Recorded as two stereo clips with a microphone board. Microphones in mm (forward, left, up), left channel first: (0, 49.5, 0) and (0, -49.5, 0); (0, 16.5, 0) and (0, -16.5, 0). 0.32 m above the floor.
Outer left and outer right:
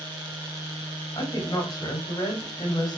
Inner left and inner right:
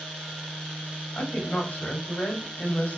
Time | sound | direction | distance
1.1 | a woman speaking | 45° left (ahead or behind) | 1.9 m